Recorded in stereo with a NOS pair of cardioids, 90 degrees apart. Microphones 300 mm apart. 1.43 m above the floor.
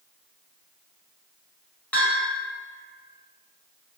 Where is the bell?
5° left, 1.3 m.